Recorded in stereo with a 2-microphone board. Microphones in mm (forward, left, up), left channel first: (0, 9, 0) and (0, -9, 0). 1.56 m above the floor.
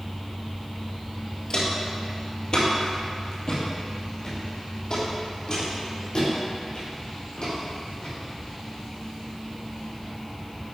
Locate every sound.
1.5 s footsteps: 45° left (ahead or behind), 2 m